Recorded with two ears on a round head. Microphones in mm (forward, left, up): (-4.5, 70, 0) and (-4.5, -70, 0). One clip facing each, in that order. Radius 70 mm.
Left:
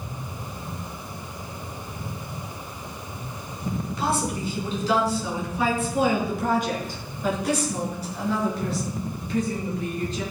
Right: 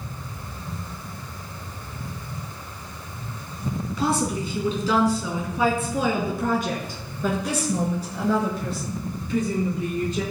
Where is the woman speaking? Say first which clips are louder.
Right 3 dB; 75° right (ahead or behind), 4 m; by 10.2 s 80° right, 8 m.